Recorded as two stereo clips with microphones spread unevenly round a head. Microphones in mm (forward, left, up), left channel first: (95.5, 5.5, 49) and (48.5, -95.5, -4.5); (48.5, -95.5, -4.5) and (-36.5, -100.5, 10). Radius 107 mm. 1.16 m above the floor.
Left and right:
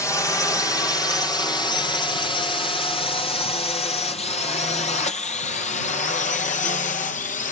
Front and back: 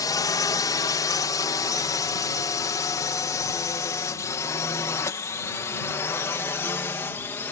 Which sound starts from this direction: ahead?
A drone, at 0.0 s.